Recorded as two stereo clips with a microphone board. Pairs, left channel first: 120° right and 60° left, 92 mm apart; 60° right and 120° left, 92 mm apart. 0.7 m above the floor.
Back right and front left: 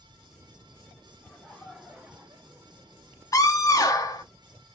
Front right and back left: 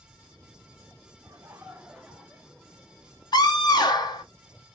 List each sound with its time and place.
1.2 s laughter: 165° left, 1.1 m; by 3.4 s 10° left, 1.6 m
3.3 s a scream: 75° right, 0.9 m